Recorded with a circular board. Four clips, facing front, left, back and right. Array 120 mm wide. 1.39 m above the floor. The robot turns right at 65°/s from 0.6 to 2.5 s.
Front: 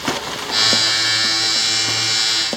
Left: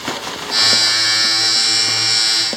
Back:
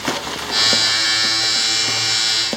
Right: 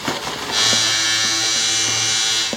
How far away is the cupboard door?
No cupboard door in this recording.